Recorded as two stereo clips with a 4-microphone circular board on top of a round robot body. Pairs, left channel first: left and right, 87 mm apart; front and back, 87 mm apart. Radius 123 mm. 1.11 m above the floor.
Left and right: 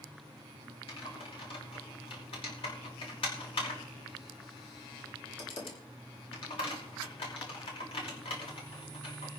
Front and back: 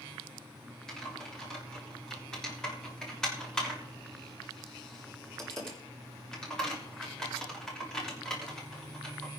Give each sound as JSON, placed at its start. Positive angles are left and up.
{"t": 0.9, "sound": "typing on a keyboard", "azimuth_deg": 85, "distance_m": 6.0}